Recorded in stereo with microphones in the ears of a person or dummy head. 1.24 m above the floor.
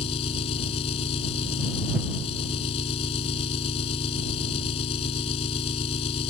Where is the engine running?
35° left (ahead or behind).